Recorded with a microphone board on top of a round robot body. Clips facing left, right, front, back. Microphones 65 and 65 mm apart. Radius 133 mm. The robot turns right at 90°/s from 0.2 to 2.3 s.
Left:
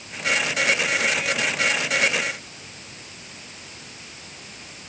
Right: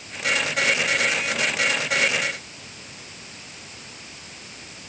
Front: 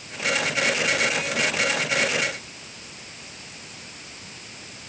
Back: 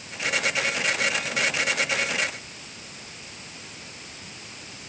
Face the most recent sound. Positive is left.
No sound to turn to.